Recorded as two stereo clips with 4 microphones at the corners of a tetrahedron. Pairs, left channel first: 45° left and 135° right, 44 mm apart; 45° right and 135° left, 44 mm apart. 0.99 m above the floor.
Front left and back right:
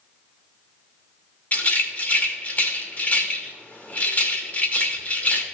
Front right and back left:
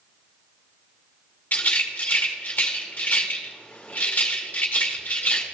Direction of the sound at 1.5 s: Straight ahead.